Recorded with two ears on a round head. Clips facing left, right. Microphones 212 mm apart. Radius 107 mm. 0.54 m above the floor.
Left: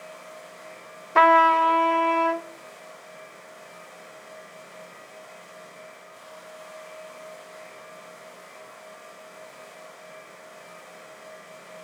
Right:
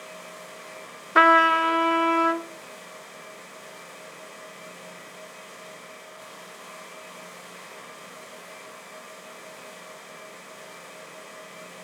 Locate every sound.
1.1 s a trumpet: 15° right (ahead or behind), 0.9 m